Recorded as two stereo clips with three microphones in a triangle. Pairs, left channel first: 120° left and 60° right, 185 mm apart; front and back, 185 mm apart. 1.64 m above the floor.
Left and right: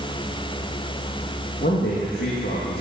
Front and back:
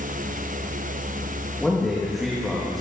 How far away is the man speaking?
About 2 m.